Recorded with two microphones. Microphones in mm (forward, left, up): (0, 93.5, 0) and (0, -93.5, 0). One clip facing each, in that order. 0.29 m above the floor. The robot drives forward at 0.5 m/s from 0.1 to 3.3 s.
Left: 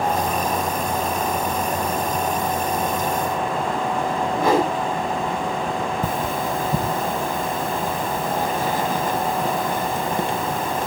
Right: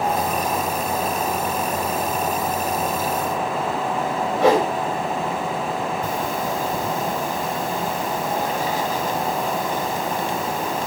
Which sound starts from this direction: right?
A whoosh, at 4.3 s.